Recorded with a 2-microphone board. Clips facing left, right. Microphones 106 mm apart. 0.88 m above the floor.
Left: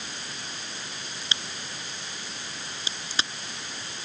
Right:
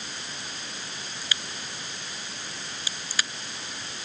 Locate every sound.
1.2 s a crack: 25° left (ahead or behind)